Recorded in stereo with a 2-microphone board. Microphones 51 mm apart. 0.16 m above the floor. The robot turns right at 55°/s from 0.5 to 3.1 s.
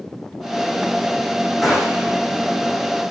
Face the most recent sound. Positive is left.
turn(degrees=-100)